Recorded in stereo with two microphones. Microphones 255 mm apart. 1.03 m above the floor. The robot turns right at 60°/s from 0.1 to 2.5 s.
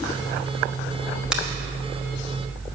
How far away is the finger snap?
About 1.1 m.